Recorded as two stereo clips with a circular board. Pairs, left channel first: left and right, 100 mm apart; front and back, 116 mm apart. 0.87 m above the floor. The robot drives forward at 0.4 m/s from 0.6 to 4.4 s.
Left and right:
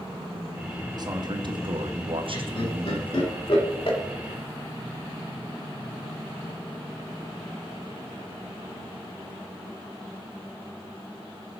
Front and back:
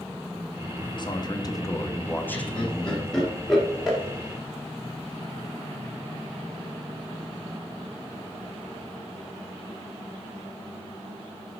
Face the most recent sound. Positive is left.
turn(degrees=100)